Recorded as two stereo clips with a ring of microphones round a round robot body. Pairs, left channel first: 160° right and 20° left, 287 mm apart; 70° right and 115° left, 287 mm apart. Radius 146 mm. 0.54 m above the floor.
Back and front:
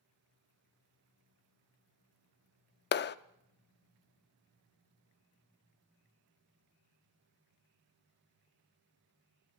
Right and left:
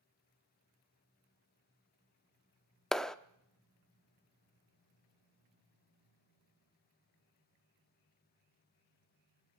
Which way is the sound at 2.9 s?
155° right.